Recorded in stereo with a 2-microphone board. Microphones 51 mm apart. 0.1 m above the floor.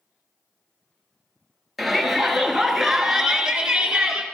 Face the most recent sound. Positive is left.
turn(degrees=-15)  # may be behind; listen again after turning